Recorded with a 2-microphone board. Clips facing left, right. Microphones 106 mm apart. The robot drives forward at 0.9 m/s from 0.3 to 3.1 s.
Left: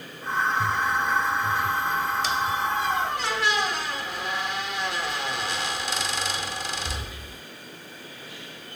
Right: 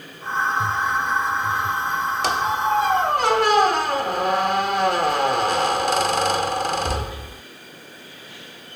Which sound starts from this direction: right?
A squeak, at 2.2 s.